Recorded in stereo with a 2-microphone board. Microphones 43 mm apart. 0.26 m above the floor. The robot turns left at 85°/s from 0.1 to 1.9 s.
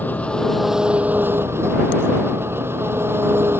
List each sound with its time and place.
0.0 s an engine running: 45° left; by 3.6 s 110° right